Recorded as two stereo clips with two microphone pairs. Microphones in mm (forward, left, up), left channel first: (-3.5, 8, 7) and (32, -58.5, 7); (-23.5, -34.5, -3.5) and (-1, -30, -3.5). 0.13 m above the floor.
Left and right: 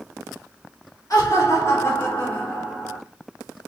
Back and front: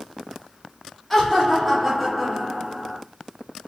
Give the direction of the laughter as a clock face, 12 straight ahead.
8 o'clock.